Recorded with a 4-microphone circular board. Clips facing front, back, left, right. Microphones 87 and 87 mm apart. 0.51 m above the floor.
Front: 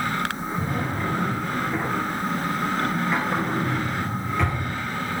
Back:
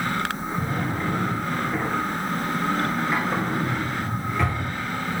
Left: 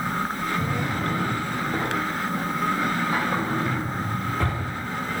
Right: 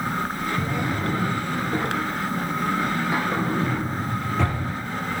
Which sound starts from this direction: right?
A drawer, at 0.6 s.